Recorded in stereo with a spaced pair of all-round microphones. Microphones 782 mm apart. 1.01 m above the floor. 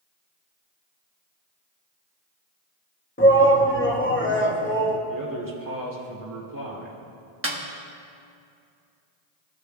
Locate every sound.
3.2 s a shout: 15° left (ahead or behind), 1.1 m
5.1 s a man speaking: 25° right (ahead or behind), 1.8 m
7.4 s a snare drum: 20° right (ahead or behind), 1.0 m